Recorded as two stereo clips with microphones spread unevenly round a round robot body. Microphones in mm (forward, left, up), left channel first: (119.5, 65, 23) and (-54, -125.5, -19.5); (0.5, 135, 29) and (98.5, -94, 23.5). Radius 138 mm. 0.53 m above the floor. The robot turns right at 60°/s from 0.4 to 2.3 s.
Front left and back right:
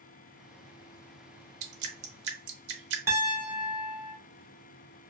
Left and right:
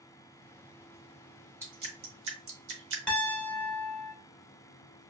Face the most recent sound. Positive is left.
turn(degrees=-165)